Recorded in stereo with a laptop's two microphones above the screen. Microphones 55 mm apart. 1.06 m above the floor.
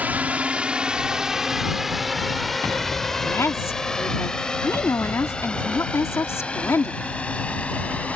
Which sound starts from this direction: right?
A drone, at 0.0 s.